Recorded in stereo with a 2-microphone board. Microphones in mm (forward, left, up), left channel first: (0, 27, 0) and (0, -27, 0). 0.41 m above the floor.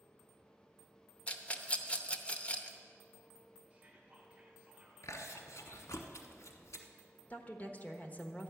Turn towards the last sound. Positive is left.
turn(degrees=30)  # may be behind; listen again after turning